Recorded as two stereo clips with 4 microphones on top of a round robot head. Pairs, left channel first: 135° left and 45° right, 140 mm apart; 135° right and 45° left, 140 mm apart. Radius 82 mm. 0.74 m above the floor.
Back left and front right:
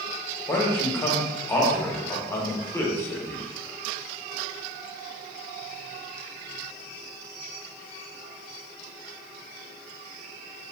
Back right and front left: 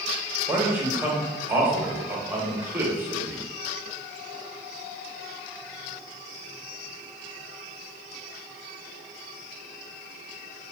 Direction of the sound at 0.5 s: 95° left.